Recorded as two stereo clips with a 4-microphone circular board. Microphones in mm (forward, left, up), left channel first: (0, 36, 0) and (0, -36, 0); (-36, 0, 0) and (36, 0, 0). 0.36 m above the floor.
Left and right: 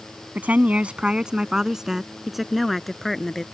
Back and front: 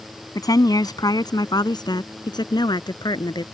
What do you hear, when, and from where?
0.3 s a woman speaking: 155° right; by 3.4 s 175° left